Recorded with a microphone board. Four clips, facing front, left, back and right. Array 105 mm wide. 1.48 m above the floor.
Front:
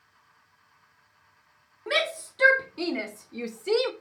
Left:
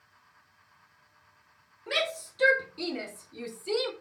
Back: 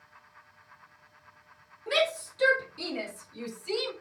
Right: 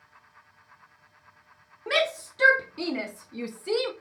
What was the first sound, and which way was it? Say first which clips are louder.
A shout: right 5 dB, back 1 dB; 60° right.